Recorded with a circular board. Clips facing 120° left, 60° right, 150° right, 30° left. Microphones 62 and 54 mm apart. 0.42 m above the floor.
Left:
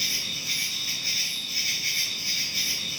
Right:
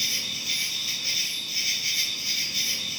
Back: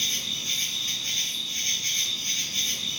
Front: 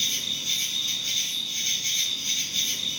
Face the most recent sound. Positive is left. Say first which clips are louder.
# even, even
turn(degrees=170)